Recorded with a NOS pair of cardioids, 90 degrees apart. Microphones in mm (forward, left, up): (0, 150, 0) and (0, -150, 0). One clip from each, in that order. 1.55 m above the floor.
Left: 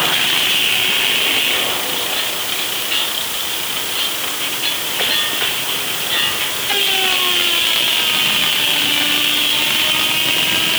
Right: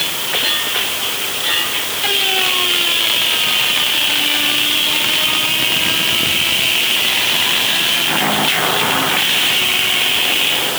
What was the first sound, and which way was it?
Only background noise.